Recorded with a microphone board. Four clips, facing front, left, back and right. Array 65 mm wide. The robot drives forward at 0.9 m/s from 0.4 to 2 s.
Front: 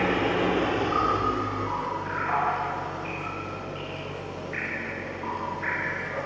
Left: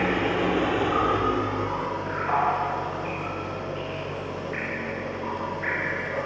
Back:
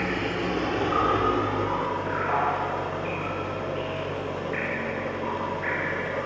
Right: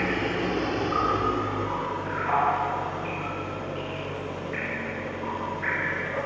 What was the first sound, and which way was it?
An engine running, 35° left.